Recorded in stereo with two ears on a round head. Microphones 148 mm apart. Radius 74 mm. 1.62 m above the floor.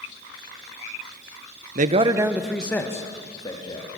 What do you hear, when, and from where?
1.8 s a man speaking: 50° right (ahead or behind), 1.1 m; by 3.9 s 30° left (ahead or behind), 3 m